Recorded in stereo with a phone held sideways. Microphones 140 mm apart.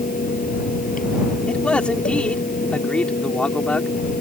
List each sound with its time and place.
0.0 s a fan: 85° left
1.5 s a man speaking: 10° left (ahead or behind)